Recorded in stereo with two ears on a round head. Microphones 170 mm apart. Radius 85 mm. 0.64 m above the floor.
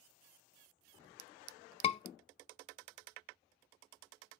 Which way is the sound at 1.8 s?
30° left (ahead or behind).